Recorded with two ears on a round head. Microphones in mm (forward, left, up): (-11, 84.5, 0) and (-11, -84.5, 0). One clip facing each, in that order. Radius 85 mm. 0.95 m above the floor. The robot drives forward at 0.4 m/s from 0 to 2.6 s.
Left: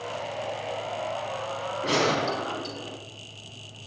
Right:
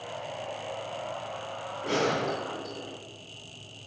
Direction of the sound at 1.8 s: 65° left (ahead or behind).